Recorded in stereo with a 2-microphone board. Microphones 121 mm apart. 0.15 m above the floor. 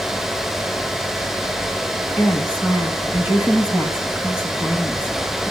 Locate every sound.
2.2 s a woman speaking: 10° right (ahead or behind), 1.4 m